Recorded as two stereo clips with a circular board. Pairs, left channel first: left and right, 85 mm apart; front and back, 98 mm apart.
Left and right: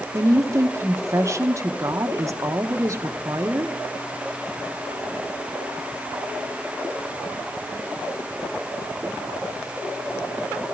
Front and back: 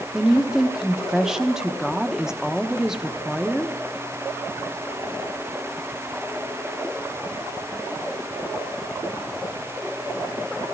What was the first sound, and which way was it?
A woman speaking, 100° right.